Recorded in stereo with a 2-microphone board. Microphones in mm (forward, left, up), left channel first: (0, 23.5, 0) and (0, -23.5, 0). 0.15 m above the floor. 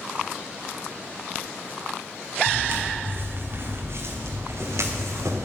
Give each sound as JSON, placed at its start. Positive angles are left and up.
{"t": 2.5, "sound": "footsteps", "side_deg": -35, "distance_m": 2.0}